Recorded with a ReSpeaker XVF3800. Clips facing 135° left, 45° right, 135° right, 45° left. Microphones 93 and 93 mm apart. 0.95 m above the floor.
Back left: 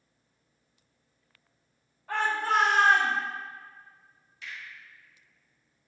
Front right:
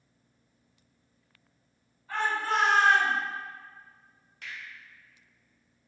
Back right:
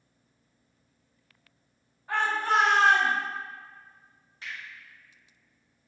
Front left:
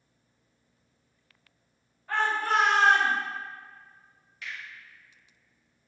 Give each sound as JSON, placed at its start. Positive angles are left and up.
{"t": 2.1, "sound": "a shout", "azimuth_deg": 155, "distance_m": 1.7}
{"t": 4.4, "sound": "a finger snap", "azimuth_deg": -75, "distance_m": 1.6}